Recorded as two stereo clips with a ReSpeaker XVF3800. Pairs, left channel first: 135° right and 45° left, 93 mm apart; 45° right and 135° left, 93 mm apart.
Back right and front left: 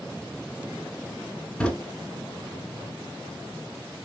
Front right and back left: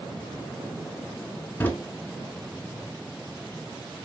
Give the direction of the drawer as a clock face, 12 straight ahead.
2 o'clock.